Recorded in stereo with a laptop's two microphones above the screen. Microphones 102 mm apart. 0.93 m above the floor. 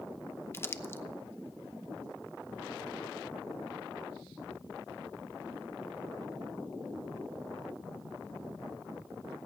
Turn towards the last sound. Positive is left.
turn(degrees=25)  # may be behind; listen again after turning